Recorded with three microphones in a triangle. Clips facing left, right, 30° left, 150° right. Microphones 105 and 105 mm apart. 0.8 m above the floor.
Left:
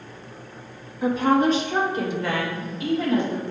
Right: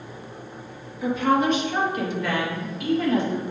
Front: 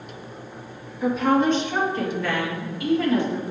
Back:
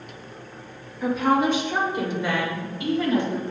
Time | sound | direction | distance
1.0 | a woman speaking | 110° left | 1.2 m